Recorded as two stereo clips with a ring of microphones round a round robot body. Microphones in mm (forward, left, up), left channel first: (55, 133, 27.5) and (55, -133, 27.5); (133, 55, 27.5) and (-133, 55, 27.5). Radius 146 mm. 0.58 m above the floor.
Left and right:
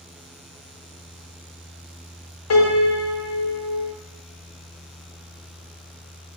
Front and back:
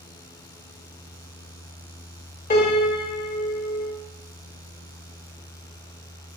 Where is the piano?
60° left, 1.8 m.